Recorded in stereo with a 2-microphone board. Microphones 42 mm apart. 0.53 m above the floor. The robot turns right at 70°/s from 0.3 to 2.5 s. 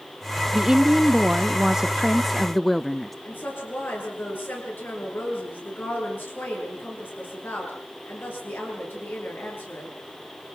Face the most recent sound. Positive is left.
turn(degrees=55)  # may be behind; listen again after turning